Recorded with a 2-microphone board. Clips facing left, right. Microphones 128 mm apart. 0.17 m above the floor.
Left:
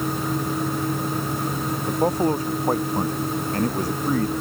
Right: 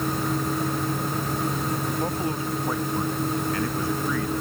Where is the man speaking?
40° left (ahead or behind).